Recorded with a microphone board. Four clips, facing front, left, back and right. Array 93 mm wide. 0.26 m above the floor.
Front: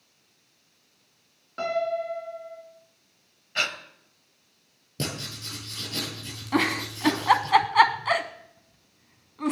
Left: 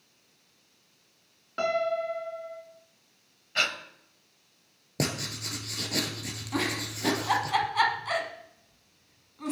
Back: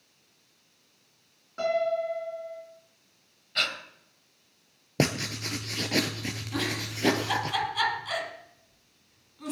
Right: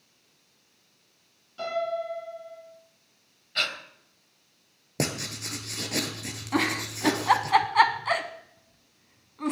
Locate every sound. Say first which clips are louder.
1.6 s a piano: left 2 dB, back 1 dB; 70° left, 2.5 m
3.5 s breathing: left 2 dB, front 2 dB; 40° left, 1.2 m
5.0 s writing: right 1 dB, back 7 dB; 170° right, 1.2 m
6.5 s a giggle: right 4 dB, front 9 dB; 25° right, 0.9 m